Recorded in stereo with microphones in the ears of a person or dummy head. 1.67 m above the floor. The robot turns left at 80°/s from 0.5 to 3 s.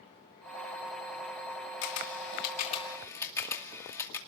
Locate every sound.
1.8 s a camera shutter: 65° left (ahead or behind), 2.5 m; by 4.2 s 15° left (ahead or behind), 2.5 m